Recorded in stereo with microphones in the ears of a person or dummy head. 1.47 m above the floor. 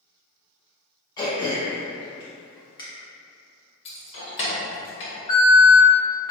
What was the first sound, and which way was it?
Throat clearing, 20° left (ahead or behind).